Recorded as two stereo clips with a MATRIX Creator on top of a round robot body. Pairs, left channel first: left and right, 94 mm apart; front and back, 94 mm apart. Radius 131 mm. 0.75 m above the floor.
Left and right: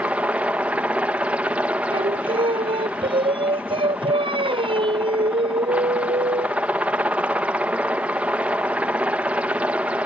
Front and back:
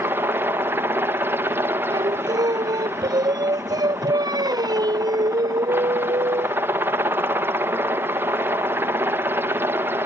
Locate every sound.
0.0 s a helicopter: 150° right
1.9 s singing: 130° right